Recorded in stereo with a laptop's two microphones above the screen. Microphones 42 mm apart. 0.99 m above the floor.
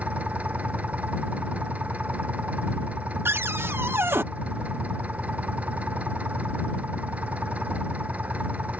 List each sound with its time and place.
0.0 s an engine running: 35° right (ahead or behind)
3.2 s a cupboard door: 70° right (ahead or behind)